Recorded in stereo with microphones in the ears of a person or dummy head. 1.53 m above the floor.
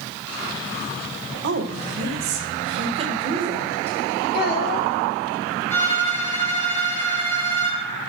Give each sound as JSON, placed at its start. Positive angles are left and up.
{"t": 1.4, "sound": "a woman speaking", "side_deg": -70, "distance_m": 1.8}
{"t": 4.3, "sound": "a child speaking", "side_deg": 55, "distance_m": 2.0}
{"t": 5.7, "sound": "a violin", "side_deg": 10, "distance_m": 5.0}